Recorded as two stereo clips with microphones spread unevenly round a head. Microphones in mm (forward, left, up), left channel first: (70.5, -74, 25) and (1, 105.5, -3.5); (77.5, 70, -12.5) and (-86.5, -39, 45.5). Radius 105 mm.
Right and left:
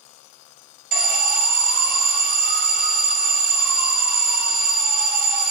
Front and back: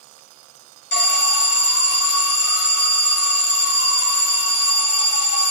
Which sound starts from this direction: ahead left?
An alarm, at 0.9 s.